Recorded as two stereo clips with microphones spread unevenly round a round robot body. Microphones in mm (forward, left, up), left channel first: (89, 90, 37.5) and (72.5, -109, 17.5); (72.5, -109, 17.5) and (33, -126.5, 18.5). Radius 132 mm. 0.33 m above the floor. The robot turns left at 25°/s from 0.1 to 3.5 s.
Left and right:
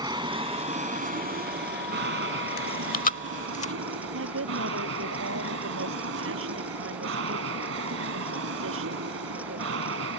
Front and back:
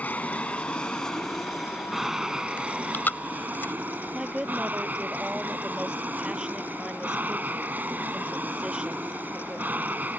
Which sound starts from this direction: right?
A woman speaking, at 4.1 s.